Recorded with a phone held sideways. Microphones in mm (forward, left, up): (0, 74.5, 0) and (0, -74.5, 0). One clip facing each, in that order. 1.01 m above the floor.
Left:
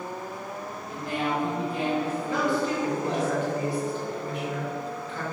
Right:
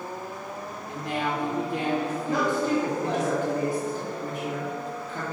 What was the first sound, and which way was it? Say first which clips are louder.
A woman speaking: even; 80° right.